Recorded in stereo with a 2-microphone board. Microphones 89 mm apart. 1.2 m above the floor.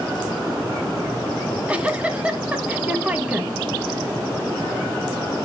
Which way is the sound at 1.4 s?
15° right (ahead or behind).